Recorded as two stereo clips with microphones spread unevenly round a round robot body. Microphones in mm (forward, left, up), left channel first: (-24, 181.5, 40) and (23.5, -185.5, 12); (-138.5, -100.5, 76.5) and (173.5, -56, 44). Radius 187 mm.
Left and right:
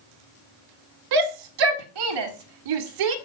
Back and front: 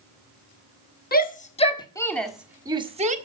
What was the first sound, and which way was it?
A shout, 110° right.